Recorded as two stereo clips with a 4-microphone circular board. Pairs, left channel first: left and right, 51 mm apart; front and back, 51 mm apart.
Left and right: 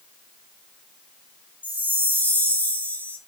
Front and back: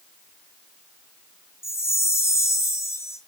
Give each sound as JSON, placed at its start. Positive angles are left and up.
{"t": 1.6, "sound": "a chime", "azimuth_deg": 35, "distance_m": 1.8}